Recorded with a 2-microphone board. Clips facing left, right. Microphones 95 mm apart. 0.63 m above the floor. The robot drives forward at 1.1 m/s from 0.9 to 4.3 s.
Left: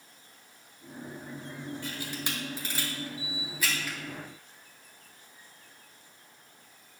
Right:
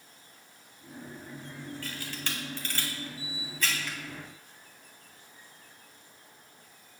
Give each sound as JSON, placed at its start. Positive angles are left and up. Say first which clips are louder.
{"t": 1.8, "sound": "a camera shutter", "louder": "left 2 dB", "side_deg": 20, "distance_m": 1.5}